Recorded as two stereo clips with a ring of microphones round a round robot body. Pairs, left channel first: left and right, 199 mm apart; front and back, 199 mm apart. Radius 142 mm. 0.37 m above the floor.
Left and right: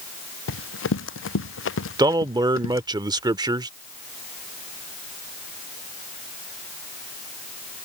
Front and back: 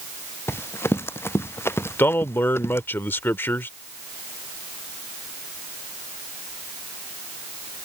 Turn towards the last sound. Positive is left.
turn(degrees=-60)